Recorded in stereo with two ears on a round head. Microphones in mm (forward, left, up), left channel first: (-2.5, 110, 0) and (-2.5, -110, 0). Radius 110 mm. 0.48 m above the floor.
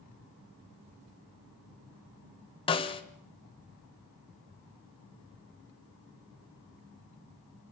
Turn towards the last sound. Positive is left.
turn(degrees=20)  # may be behind; listen again after turning